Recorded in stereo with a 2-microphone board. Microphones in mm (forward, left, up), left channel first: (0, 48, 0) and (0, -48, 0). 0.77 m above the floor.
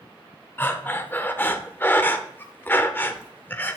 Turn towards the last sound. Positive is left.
turn(degrees=20)  # may be behind; listen again after turning